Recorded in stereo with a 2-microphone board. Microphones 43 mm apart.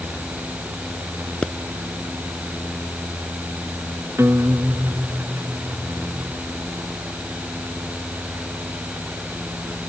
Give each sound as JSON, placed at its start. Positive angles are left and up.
{"t": 1.4, "sound": "a pop", "side_deg": 20}
{"t": 4.2, "sound": "a guitar", "side_deg": -80}